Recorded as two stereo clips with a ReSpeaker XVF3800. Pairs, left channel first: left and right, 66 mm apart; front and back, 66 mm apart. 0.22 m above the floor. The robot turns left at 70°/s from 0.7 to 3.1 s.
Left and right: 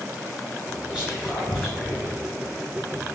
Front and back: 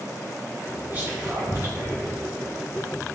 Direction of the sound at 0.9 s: 145° right.